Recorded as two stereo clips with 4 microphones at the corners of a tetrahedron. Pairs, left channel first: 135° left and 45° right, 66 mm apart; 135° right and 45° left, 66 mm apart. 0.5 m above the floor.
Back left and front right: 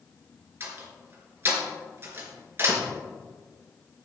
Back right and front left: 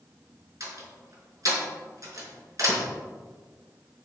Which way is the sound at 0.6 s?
10° left.